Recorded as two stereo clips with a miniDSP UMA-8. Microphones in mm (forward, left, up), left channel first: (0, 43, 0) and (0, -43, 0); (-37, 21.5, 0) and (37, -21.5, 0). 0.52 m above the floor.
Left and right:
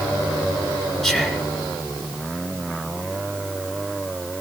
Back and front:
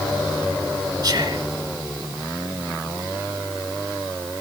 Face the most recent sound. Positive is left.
turn(degrees=0)